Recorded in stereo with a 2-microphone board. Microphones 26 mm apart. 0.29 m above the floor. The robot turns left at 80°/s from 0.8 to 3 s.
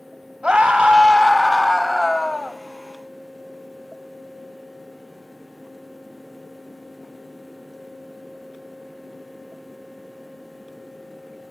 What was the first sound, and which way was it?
A scream, 105° right.